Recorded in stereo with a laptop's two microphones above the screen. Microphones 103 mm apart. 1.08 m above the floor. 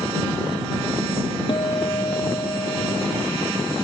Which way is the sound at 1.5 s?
45° left (ahead or behind).